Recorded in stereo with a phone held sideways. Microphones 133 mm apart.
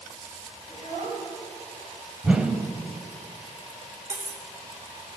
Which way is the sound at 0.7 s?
70° right (ahead or behind).